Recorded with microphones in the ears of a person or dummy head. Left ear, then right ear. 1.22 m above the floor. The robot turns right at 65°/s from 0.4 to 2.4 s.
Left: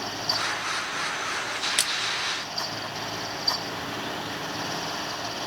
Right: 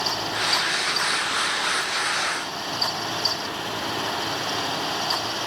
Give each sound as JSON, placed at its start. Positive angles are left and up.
{"t": 1.8, "sound": "a splash", "side_deg": 40, "distance_m": 0.9}